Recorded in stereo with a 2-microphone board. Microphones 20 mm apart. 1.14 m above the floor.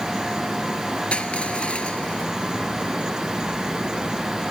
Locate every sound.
1.1 s crushing: 70° left (ahead or behind)